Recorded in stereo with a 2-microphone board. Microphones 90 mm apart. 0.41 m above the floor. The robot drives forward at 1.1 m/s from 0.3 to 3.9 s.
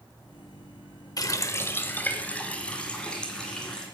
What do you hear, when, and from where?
1.2 s a running tap: 40° left (ahead or behind), 0.6 m; by 3.9 s 10° left (ahead or behind), 3 m